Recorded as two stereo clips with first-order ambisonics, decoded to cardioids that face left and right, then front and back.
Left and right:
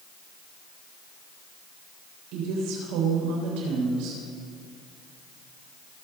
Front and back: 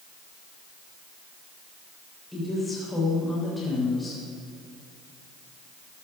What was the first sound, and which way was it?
A woman speaking, 85° right.